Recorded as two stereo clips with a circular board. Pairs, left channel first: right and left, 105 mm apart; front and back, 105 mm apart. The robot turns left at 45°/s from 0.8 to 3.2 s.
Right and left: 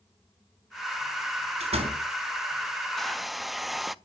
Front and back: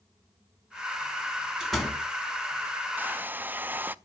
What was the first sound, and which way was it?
A door slam, 95° left.